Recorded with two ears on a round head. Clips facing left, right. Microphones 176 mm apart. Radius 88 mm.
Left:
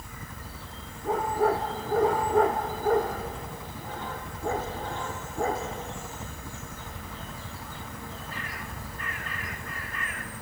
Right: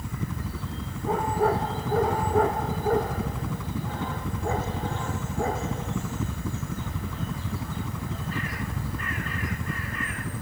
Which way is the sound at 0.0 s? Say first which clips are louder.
Right 10 dB; 65° right (ahead or behind).